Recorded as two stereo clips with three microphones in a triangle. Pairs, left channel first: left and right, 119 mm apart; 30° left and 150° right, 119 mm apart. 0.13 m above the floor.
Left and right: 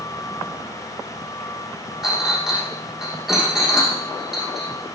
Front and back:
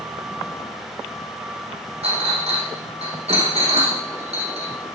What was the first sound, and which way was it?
A clink, 175° right.